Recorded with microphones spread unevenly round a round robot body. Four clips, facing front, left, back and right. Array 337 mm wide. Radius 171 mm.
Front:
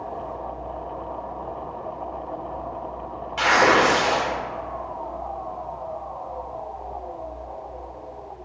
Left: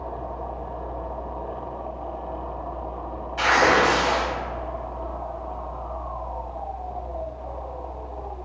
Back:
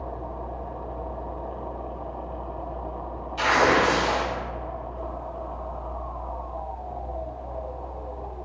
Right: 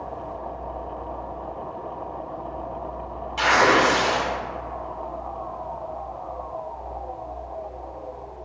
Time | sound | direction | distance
3.4 | tearing paper | 60° right | 1.7 m